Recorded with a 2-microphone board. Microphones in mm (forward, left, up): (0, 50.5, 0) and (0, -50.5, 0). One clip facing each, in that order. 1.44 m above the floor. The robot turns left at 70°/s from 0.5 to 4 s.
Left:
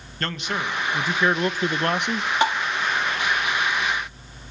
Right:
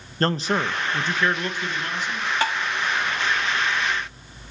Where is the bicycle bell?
I don't hear a bicycle bell.